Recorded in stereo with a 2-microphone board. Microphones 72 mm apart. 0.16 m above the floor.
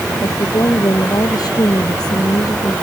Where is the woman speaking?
55° left (ahead or behind); by 2.7 s 75° left (ahead or behind).